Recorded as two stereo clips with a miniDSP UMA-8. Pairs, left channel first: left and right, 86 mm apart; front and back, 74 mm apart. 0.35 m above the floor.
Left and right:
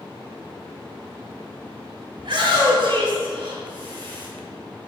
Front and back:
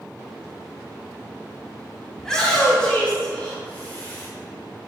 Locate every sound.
2.2 s a shout: 80° right, 2 m; by 4.3 s 65° right, 3 m